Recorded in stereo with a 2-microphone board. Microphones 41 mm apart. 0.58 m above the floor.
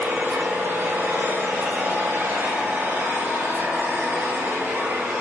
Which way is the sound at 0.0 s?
70° right (ahead or behind).